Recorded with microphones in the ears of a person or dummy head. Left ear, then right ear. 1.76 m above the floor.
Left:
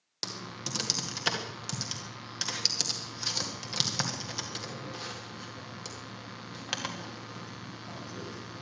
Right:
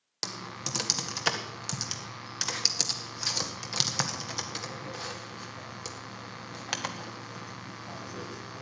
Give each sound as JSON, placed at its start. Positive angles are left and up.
{"t": 0.2, "sound": "typing on a keyboard", "side_deg": -15, "distance_m": 1.6}